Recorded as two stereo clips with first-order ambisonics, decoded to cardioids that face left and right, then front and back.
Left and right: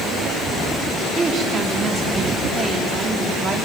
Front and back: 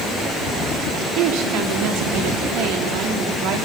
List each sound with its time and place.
1.1 s a woman speaking: 165° right, 2 m